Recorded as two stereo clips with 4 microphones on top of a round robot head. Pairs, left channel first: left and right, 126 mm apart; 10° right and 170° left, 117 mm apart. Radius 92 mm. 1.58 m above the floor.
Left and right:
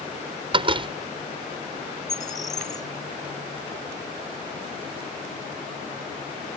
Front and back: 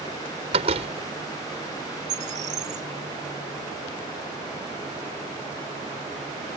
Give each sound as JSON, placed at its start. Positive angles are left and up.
{"t": 0.5, "sound": "a door slam", "azimuth_deg": -140}
{"t": 2.1, "sound": "a bird", "azimuth_deg": 150}